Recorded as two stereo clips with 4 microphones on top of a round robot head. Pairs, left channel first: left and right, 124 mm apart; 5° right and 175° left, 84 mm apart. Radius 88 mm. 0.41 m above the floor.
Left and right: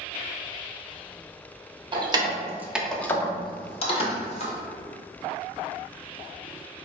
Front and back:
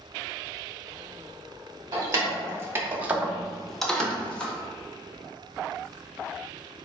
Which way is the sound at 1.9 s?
135° right.